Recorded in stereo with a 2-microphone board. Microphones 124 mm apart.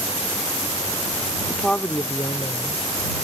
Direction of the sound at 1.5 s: 5° right (ahead or behind).